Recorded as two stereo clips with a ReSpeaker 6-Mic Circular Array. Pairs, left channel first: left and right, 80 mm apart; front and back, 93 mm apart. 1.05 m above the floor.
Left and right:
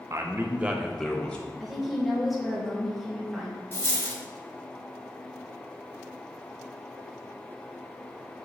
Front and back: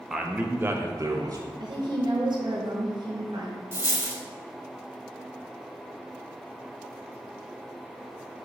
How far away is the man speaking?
About 0.8 m.